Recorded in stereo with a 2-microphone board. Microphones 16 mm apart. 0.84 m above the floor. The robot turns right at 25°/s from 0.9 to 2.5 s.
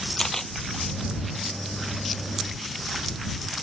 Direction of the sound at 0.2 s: 30° left (ahead or behind).